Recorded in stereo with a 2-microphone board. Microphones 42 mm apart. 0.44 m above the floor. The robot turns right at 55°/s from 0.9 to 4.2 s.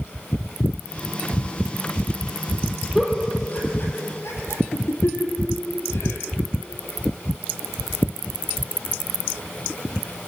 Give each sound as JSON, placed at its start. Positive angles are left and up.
{"t": 3.0, "sound": "a giggle", "side_deg": 5, "distance_m": 3.5}